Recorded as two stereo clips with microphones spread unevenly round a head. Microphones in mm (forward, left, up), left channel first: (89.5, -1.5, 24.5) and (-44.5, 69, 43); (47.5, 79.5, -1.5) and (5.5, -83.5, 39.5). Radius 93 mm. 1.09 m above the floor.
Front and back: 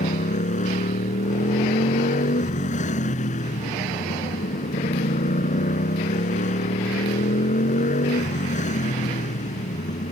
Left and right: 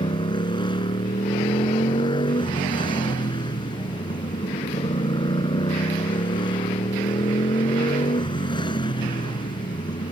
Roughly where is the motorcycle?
Ahead.